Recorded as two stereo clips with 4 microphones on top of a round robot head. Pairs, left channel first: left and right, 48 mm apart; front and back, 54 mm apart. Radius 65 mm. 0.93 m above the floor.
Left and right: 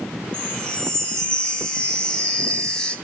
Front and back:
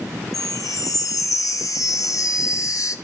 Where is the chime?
15° left, 1.3 m.